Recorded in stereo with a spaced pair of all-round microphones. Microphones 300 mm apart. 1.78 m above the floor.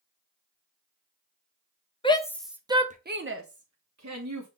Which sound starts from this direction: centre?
A shout, at 2.0 s.